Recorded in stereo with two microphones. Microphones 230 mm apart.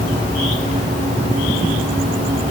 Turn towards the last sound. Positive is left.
No sound to turn to.